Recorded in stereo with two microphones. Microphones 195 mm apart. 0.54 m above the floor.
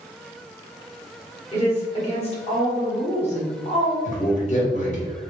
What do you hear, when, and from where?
1.5 s a woman speaking: 35° left (ahead or behind), 1.4 m
4.0 s a man speaking: 40° left (ahead or behind), 1.3 m